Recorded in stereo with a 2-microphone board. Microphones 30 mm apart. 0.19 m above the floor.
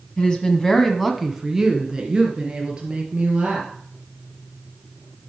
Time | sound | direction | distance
0.2 | a woman speaking | 30° left (ahead or behind) | 1.4 m